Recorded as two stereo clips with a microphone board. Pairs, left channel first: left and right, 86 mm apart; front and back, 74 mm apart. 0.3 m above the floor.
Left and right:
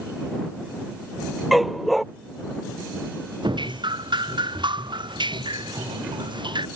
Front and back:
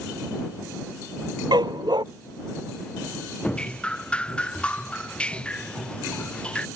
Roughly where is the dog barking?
Behind.